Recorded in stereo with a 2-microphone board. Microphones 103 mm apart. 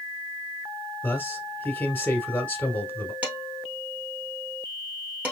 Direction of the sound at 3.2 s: 15° right (ahead or behind).